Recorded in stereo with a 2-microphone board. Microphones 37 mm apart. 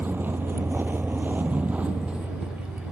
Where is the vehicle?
60° right (ahead or behind); by 2.9 s 20° right (ahead or behind).